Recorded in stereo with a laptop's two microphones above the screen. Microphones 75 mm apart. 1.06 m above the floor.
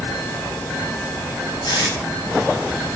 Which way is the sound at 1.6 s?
65° left (ahead or behind).